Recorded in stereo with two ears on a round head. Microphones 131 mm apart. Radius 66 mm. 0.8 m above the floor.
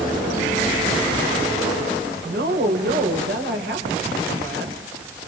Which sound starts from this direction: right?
A woman speaking, at 2.2 s.